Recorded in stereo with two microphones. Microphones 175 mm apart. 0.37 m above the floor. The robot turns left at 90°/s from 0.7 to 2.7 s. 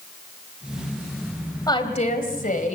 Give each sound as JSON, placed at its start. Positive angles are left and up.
{"t": 1.7, "sound": "a woman speaking", "azimuth_deg": 155, "distance_m": 2.5}